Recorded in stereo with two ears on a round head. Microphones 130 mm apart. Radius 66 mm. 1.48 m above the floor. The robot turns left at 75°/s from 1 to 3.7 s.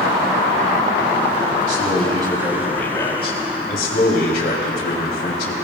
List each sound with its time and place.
1.7 s a man speaking: 105° right, 3 m; by 5.5 s 100° left, 3 m